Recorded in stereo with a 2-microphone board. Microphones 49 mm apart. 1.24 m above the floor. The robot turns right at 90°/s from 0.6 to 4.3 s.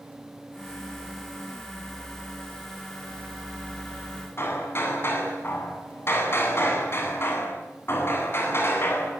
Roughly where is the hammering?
Left.